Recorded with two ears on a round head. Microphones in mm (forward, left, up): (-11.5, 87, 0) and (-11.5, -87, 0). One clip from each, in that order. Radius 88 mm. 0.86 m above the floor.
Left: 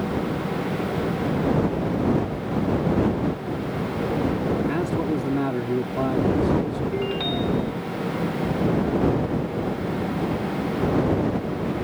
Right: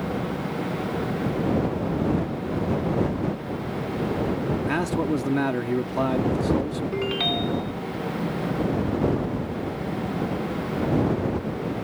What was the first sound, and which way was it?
A man speaking, 55° right (ahead or behind).